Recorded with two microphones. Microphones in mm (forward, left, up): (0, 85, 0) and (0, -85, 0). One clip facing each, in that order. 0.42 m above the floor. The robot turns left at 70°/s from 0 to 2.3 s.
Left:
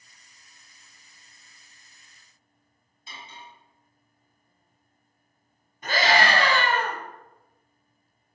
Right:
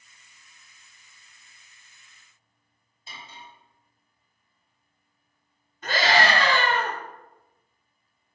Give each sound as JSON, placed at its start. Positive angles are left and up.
{"t": 3.1, "sound": "cutlery clinking", "side_deg": -40, "distance_m": 1.3}
{"t": 5.8, "sound": "a scream", "side_deg": 15, "distance_m": 1.3}